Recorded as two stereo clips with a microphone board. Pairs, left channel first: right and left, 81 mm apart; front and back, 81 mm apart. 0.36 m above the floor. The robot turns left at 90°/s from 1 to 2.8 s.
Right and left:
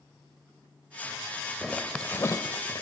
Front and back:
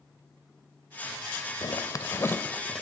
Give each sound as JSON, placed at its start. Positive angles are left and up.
{"t": 1.6, "sound": "a zipper", "azimuth_deg": 10, "distance_m": 1.1}